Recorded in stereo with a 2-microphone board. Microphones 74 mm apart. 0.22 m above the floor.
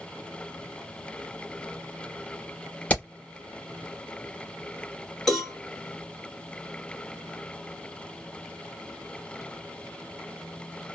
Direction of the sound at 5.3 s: 5° left (ahead or behind).